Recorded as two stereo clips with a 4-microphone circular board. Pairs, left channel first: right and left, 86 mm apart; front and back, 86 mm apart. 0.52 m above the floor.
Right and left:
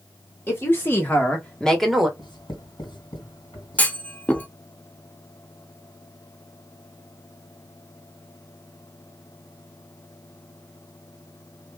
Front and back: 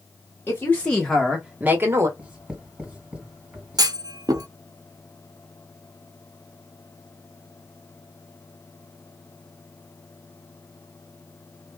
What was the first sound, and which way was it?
A woman speaking, 45° right.